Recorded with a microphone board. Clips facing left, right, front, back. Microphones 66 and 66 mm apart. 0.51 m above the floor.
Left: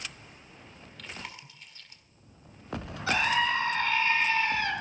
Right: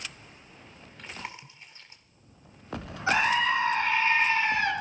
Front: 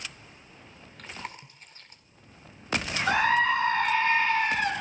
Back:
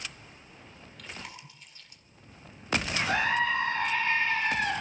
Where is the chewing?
30° right, 1.5 m.